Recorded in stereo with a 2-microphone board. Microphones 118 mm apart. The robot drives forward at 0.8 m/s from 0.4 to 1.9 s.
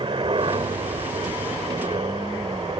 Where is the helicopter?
45° right (ahead or behind).